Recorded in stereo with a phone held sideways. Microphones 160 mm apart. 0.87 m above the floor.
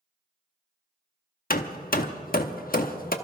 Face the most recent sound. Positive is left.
turn(degrees=65)  # may be behind; listen again after turning